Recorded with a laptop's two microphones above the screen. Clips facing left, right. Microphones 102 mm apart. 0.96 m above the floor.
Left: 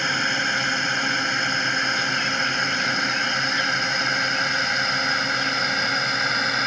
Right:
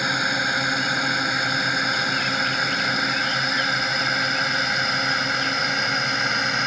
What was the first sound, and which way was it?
A drone, 5° right (ahead or behind).